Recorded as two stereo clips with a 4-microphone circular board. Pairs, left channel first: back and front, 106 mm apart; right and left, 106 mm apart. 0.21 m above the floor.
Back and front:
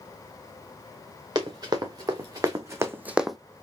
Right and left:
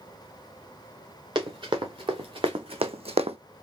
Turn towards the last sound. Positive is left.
turn(degrees=95)